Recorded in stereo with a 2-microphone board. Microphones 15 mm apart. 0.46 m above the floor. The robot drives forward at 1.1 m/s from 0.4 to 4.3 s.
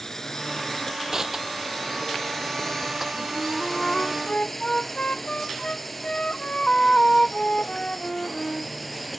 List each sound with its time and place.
0.0 s a drone: 25° left (ahead or behind); by 9.2 s centre (ahead or behind)
1.1 s crushing: 30° right (ahead or behind); by 3.1 s 20° right (ahead or behind)
3.3 s a flute: 50° left (ahead or behind); by 8.7 s 85° left